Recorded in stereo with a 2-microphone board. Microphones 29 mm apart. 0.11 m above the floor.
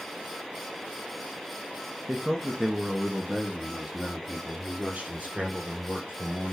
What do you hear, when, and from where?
2.1 s a man speaking: 5° left (ahead or behind), 1.1 m; by 6.5 s 45° right (ahead or behind), 2.5 m